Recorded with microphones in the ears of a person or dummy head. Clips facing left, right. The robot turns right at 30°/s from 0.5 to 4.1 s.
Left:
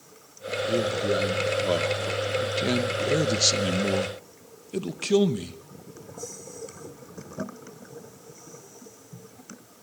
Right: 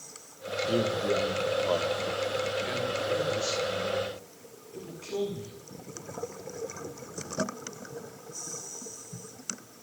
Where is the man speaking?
Straight ahead, 1.7 m; by 5.6 s 105° left, 1.7 m.